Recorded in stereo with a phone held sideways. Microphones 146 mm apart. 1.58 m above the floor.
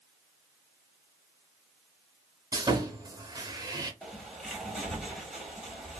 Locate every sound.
2.5 s sawing: 30° right (ahead or behind), 0.5 m
4.0 s a bird: centre (ahead or behind), 1.1 m